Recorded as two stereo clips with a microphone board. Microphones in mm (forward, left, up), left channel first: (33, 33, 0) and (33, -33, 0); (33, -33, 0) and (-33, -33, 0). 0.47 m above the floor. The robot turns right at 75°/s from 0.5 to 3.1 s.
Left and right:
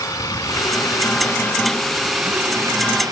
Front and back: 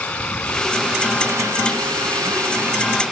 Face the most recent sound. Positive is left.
turn(degrees=-95)